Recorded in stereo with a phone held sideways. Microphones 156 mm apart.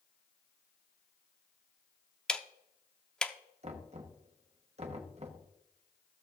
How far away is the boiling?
No boiling in this recording.